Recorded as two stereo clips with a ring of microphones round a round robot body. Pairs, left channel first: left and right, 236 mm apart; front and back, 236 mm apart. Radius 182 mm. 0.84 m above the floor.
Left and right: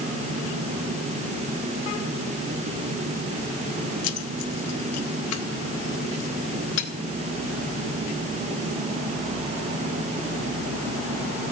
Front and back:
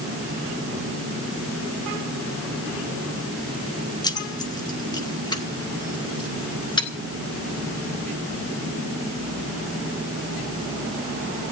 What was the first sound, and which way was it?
Keys jangling, 75° left.